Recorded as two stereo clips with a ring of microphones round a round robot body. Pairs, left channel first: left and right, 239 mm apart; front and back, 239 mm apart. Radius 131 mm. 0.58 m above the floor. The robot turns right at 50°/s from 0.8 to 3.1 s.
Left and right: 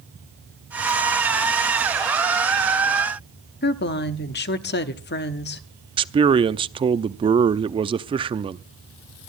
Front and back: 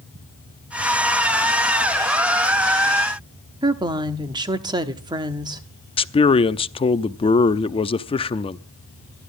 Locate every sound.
3.6 s a woman speaking: 115° left, 1.0 m
6.0 s a man speaking: 45° right, 0.7 m